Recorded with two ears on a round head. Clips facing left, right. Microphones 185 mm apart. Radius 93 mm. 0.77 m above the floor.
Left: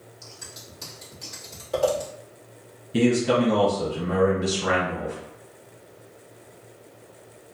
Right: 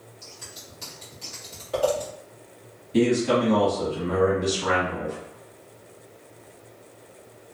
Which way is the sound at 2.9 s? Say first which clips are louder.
Even; 10° left (ahead or behind).